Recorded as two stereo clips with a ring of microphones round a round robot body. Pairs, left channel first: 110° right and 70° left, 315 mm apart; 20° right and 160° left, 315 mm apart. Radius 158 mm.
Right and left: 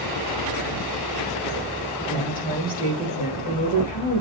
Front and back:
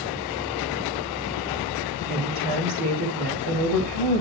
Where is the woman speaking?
175° right, 8 m.